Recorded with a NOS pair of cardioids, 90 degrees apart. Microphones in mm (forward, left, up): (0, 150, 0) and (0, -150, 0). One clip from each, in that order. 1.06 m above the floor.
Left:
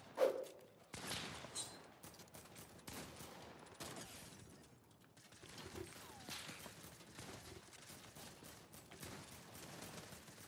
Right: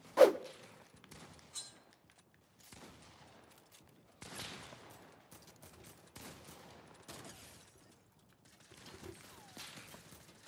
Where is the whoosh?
60° right, 0.6 m.